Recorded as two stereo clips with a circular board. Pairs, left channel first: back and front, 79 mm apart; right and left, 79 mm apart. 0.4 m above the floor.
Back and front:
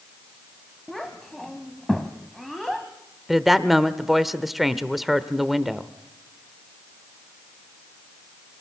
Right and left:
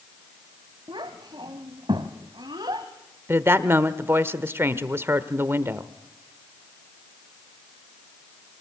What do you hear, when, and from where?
0.9 s a child speaking: 90° left, 1.5 m
3.3 s a woman speaking: 85° left, 1.1 m